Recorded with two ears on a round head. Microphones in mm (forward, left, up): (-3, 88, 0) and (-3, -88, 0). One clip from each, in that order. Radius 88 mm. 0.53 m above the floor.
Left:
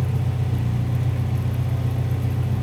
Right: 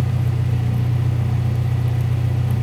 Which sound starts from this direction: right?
An engine running, at 0.0 s.